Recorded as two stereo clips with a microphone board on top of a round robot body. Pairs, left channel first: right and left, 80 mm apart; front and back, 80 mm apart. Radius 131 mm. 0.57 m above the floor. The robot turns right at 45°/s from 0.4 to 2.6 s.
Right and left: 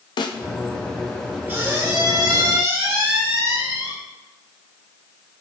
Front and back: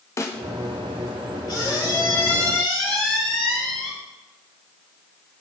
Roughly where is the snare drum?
Ahead right.